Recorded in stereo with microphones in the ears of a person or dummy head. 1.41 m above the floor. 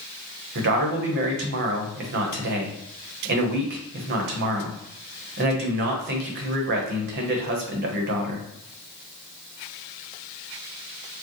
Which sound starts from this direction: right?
A man speaking, at 0.6 s.